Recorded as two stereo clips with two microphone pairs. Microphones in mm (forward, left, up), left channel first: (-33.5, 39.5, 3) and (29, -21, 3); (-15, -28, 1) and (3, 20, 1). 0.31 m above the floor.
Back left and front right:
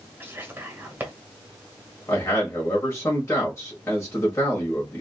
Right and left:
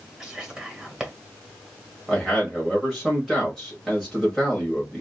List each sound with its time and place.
0.2 s whispering: 5° left, 1.7 m
2.1 s a man speaking: 160° left, 1.4 m